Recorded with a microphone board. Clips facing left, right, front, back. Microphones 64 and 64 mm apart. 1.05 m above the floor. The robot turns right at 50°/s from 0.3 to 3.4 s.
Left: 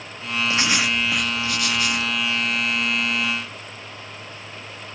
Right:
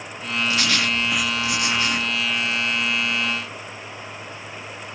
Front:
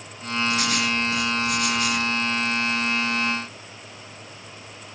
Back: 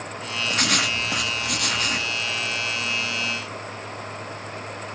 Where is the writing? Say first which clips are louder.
Left 1 dB, back 2 dB; 150° left, 1.6 m; by 2.1 s 130° right, 1.6 m.